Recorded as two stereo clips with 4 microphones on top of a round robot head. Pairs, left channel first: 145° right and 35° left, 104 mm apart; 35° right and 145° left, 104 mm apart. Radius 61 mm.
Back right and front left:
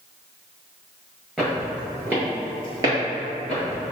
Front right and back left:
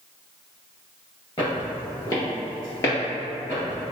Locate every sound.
1.4 s footsteps: 45° right, 1.6 m; by 3.9 s 35° left, 1.9 m